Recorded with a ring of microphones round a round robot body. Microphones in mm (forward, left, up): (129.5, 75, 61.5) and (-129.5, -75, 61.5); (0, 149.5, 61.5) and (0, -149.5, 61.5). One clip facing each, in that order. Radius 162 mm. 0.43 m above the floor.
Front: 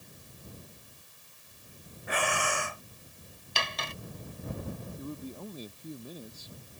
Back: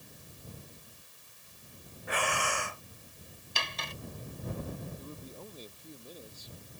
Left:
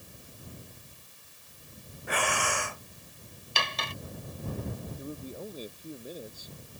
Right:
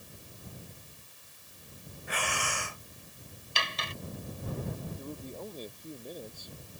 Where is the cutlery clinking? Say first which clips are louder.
Front 4 dB, left 3 dB; 50° left.